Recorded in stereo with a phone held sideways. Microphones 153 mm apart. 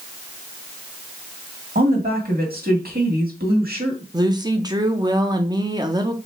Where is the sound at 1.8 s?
75° right (ahead or behind), 1.7 m.